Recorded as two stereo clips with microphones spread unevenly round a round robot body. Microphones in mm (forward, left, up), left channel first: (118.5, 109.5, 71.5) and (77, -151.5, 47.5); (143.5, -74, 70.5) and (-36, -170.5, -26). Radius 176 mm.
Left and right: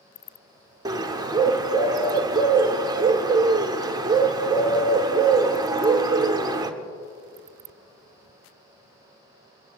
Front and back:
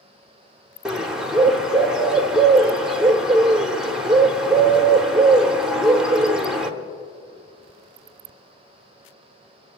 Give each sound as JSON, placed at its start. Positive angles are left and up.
{"t": 0.8, "sound": "a bird", "azimuth_deg": -145, "distance_m": 0.9}